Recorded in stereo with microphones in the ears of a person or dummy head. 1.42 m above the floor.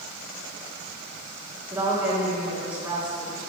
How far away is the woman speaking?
About 1.8 m.